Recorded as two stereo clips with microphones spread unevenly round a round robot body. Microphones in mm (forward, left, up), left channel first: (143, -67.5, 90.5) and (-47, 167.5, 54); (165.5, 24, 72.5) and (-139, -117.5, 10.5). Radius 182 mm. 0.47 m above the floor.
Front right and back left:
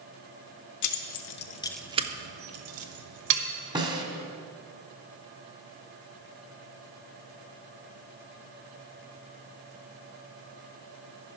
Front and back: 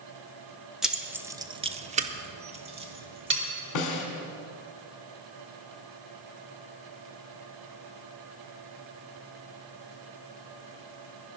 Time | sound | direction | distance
0.8 | keys jangling | 75° right | 1.0 m
3.8 | a snare drum | 60° left | 1.8 m